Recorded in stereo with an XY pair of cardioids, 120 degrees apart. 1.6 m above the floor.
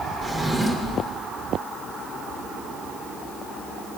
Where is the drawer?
15° right, 3 m.